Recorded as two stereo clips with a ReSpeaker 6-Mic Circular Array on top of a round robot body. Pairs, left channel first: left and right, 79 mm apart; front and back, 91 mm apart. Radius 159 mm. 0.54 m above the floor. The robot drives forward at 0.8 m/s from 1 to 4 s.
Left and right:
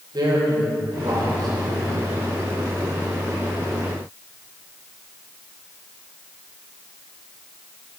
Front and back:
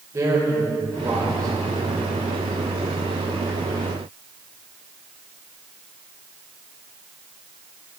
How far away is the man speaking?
About 3 m.